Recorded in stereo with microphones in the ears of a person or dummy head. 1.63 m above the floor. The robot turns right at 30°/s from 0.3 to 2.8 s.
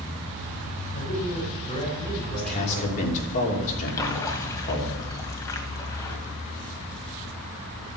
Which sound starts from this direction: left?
A man speaking, at 2.3 s.